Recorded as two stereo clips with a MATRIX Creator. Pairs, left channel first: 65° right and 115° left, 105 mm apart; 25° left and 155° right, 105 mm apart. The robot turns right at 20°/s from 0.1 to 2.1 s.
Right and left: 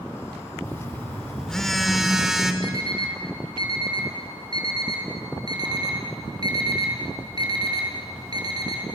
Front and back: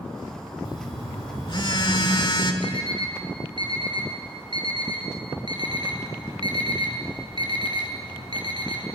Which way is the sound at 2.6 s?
160° left.